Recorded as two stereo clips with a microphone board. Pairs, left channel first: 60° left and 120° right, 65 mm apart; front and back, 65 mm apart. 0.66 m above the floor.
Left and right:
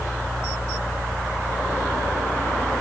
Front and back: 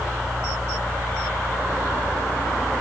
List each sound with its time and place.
Only background noise.